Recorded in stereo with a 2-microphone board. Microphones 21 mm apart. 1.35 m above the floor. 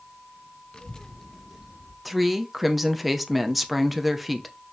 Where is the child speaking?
35° left (ahead or behind), 0.8 m; by 1.9 s 20° right (ahead or behind), 1.2 m.